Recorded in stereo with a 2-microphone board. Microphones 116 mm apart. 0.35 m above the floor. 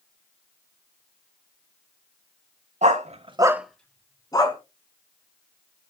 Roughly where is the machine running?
No machine running in this recording.